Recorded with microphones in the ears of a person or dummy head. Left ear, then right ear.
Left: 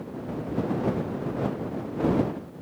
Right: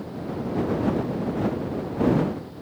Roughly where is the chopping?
No chopping in this recording.